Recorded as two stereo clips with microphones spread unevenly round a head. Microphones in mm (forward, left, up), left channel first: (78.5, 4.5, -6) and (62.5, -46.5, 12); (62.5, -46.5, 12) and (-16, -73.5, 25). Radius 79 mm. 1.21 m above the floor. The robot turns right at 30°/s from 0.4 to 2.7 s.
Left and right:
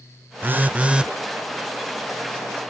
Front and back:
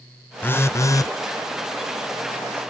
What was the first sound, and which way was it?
A phone buzzing, 50° right.